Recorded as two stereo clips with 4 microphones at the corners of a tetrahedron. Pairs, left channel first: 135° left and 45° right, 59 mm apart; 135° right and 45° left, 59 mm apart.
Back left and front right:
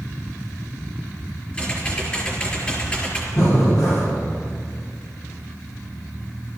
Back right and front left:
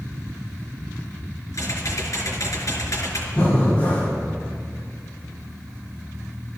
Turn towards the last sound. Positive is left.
turn(degrees=155)